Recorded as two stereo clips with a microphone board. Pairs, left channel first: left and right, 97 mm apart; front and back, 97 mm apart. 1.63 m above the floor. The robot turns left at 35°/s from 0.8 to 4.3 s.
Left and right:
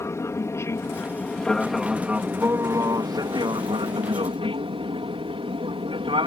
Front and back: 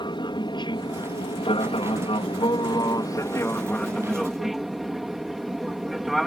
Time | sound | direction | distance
0.0 | an aircraft | 30° left | ?